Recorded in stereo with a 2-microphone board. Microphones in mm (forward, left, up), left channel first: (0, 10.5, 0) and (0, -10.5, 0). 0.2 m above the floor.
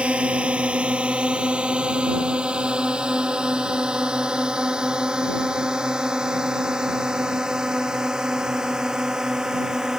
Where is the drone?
70° right (ahead or behind); by 10.0 s 30° right (ahead or behind).